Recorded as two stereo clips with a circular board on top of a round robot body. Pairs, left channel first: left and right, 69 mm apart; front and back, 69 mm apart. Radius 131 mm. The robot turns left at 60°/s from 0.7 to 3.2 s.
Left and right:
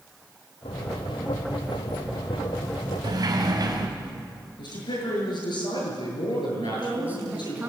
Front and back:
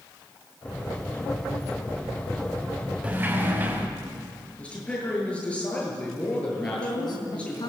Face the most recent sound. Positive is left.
turn(degrees=-25)